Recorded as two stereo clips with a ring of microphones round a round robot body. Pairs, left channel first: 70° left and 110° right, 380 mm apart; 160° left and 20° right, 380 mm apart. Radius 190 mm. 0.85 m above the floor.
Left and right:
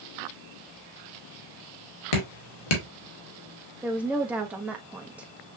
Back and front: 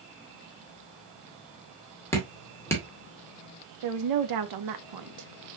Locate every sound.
2.1 s dripping: 75° left, 2 m
3.8 s a woman speaking: 25° right, 1.0 m